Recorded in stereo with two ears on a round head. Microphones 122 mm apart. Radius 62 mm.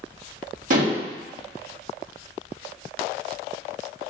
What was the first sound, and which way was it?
Dishes clattering, 60° right (ahead or behind).